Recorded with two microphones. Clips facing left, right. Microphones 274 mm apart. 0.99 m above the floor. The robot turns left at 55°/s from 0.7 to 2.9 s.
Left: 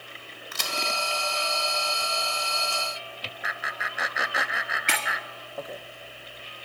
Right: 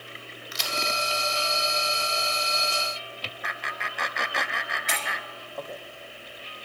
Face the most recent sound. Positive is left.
turn(degrees=85)